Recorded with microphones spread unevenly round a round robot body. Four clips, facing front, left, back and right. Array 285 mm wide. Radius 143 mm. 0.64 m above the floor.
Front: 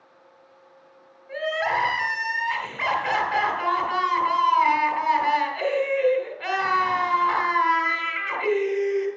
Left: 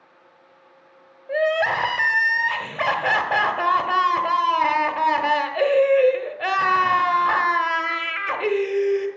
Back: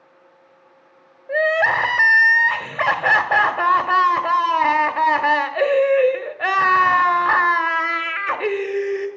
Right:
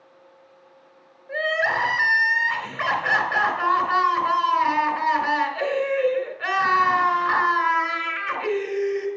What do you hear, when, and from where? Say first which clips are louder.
1.3 s crying: left 4 dB, back 7 dB; 155° left, 1.5 m